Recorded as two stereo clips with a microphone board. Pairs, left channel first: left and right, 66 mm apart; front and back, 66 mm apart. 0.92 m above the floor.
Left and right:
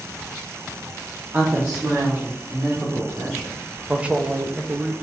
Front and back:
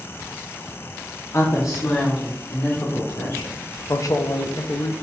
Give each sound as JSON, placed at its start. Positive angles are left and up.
{"t": 1.3, "sound": "a woman speaking", "azimuth_deg": -35, "distance_m": 0.5}
{"t": 3.9, "sound": "a man speaking", "azimuth_deg": -20, "distance_m": 0.5}